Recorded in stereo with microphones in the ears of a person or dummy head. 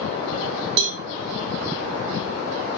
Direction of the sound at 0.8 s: 60° right (ahead or behind).